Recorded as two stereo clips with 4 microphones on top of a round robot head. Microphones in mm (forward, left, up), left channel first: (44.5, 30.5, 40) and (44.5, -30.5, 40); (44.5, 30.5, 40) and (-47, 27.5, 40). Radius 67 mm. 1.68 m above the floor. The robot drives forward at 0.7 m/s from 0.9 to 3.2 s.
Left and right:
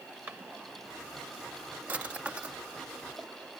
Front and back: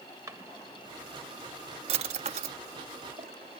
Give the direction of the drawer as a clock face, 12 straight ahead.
5 o'clock.